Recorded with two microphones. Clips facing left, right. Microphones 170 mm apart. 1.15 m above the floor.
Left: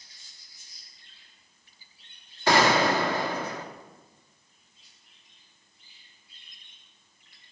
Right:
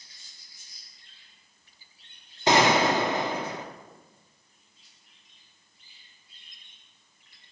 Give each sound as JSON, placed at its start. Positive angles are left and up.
{"t": 2.5, "sound": "a gunshot", "side_deg": -20, "distance_m": 0.9}